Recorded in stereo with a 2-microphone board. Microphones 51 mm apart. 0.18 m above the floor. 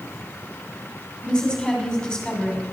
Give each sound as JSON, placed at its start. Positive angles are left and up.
{"t": 1.2, "sound": "a woman speaking", "side_deg": 20, "distance_m": 1.7}